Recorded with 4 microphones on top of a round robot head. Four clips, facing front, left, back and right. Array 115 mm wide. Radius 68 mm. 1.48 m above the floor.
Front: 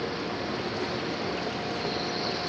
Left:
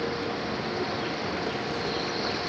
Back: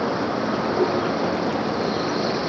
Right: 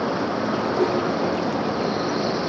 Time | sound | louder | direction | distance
0.0 | a vehicle | right 7 dB, back 9 dB | 135° right | ?